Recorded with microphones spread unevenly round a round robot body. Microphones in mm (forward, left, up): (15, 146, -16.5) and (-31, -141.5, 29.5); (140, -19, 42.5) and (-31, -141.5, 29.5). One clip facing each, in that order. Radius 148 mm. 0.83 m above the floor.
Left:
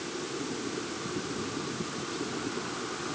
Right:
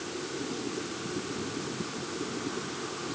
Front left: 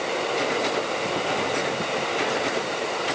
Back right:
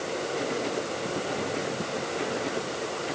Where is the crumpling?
No crumpling in this recording.